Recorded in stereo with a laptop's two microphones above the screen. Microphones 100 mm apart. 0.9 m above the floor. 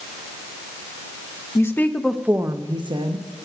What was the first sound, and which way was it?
A woman speaking, 30° left (ahead or behind).